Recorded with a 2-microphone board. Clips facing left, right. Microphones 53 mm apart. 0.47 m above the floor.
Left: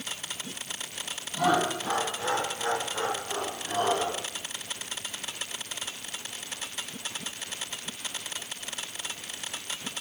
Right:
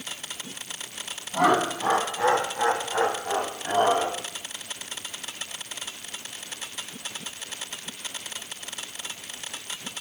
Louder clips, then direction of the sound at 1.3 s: Right 4 dB; 70° right (ahead or behind).